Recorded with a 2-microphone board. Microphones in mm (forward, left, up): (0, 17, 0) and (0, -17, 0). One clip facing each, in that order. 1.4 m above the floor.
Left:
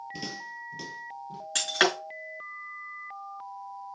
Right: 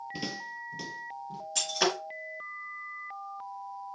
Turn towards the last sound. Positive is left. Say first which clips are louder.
# left 4 dB
turn(degrees=75)  # may be behind; listen again after turning